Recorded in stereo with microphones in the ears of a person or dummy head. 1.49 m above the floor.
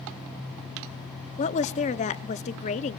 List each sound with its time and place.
1.4 s a woman speaking: 35° left (ahead or behind), 0.8 m